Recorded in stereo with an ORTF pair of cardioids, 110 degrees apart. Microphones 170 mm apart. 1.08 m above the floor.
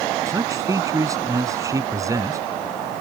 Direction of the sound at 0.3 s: 20° right.